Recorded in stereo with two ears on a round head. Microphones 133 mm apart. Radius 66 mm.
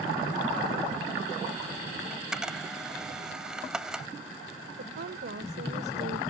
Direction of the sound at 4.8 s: 75° right (ahead or behind).